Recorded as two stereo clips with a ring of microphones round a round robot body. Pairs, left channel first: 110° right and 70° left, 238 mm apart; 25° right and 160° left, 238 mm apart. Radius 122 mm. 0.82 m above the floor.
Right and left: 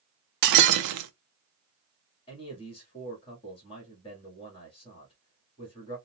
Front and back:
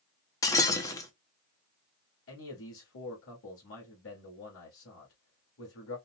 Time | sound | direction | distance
0.4 | breaking glass | 55° left | 0.6 m
2.3 | a man speaking | 45° right | 1.7 m